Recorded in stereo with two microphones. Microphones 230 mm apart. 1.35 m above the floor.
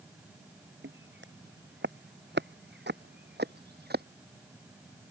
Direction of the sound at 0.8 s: 55° right (ahead or behind).